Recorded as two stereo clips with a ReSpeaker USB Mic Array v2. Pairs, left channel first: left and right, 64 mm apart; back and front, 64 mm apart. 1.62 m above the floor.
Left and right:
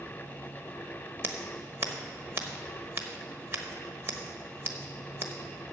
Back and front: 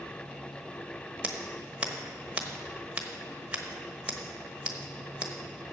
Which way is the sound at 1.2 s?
65° right.